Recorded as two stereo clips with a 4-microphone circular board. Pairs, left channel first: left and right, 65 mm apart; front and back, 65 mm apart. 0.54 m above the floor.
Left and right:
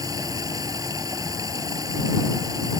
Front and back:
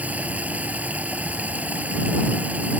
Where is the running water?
115° right.